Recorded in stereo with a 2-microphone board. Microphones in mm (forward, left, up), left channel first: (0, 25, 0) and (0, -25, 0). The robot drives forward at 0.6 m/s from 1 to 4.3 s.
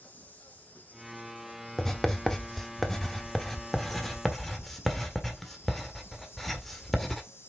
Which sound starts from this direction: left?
An insect, at 0.0 s.